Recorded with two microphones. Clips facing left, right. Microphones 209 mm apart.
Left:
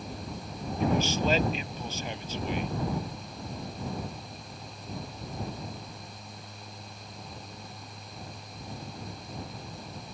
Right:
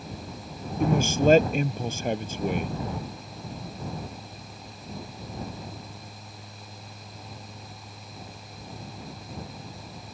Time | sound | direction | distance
0.8 | a man speaking | 50° right (ahead or behind) | ?